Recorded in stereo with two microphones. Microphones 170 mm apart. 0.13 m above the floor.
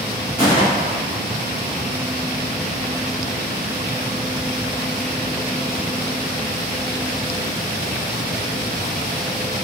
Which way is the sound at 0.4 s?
25° right (ahead or behind).